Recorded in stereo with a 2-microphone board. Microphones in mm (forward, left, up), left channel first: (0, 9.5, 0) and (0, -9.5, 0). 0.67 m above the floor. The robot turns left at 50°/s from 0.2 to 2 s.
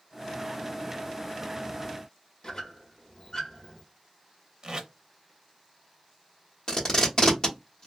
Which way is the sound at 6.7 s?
40° left (ahead or behind).